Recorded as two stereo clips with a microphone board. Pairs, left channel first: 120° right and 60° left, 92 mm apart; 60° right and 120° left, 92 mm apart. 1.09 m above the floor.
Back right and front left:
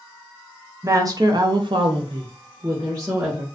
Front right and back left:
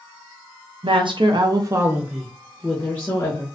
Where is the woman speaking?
115° left, 0.8 m; by 3.5 s 5° right, 1.1 m.